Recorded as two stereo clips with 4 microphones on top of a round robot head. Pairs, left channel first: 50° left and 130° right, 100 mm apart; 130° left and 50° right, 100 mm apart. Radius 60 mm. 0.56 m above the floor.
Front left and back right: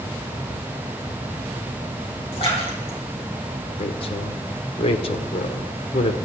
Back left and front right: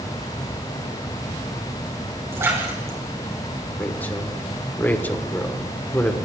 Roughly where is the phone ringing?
No phone ringing in this recording.